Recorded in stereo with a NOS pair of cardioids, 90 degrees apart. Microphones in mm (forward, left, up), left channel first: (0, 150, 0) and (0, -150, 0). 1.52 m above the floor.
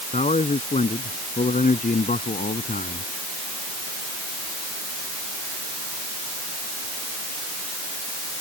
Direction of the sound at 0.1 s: 25° left.